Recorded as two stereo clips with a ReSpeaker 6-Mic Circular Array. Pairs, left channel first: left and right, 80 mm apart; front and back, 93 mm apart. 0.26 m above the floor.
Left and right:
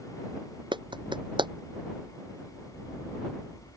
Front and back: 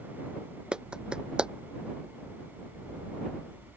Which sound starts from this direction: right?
A clap, at 0.7 s.